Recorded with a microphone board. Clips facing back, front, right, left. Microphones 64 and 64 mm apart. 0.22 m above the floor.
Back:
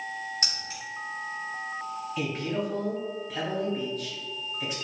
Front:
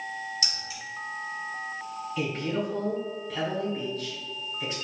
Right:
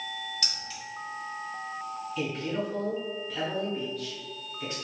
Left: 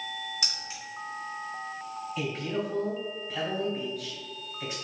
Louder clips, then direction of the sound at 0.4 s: Even, even; 155° left.